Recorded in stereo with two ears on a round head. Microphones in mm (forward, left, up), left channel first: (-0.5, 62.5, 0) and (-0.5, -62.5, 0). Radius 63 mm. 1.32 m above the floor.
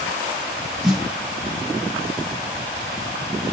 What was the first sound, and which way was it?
A snare drum, centre (ahead or behind).